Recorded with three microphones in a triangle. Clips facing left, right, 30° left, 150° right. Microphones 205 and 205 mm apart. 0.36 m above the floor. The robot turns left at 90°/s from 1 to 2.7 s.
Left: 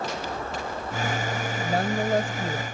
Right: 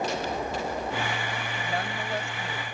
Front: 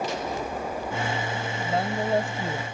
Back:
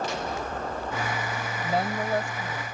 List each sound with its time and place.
1.6 s a woman speaking: 135° left; by 2.6 s 45° left